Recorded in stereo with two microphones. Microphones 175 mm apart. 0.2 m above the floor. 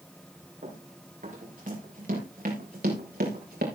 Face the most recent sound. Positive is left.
turn(degrees=-65)  # may be behind; listen again after turning